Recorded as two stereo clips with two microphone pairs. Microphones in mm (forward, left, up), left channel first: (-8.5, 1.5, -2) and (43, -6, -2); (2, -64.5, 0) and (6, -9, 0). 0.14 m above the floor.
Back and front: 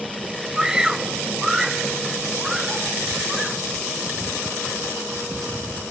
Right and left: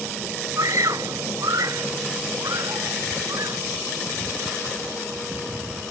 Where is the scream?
70° left; by 3.6 s 80° left.